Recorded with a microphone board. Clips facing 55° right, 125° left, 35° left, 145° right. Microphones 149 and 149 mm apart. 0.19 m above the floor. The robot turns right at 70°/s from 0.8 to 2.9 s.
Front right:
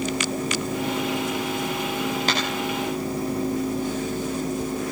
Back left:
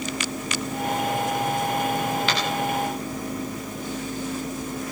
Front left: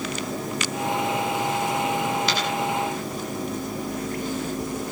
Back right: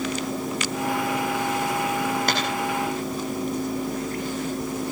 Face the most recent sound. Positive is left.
turn(degrees=-65)